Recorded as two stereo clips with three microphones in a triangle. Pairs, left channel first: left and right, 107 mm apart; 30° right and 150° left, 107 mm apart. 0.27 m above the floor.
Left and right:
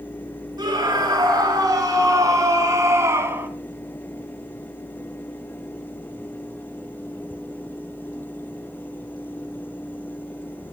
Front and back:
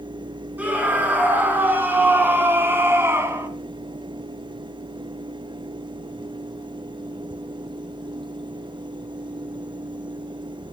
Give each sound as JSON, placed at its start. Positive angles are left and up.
{"t": 0.6, "sound": "a scream", "azimuth_deg": -135, "distance_m": 3.5}